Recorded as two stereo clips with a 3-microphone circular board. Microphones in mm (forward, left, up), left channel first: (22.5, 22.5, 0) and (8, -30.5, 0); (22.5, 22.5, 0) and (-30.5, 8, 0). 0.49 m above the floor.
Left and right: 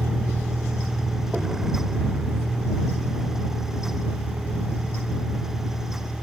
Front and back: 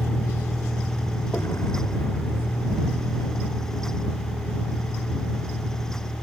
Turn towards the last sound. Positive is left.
turn(degrees=-15)